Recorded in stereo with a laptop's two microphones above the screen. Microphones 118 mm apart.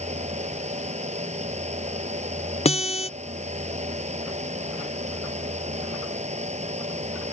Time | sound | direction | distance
0.0 | a fan | 75° right (ahead or behind) | ?
2.6 | a guitar | 70° left (ahead or behind) | ?